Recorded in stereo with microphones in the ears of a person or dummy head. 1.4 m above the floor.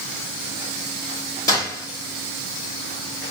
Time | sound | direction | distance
1.5 | a gunshot | 15° left (ahead or behind) | 1.7 m